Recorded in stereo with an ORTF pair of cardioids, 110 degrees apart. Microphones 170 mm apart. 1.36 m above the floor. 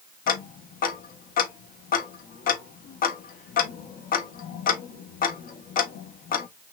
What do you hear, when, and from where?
0.3 s ticking: 55° left, 1.1 m